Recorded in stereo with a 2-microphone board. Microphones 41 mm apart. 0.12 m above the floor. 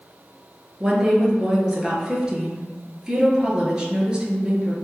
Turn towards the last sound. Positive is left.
turn(degrees=-20)  # may be behind; listen again after turning